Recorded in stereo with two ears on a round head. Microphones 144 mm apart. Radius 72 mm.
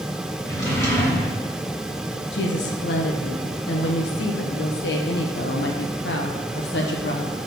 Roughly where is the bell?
No bell in this recording.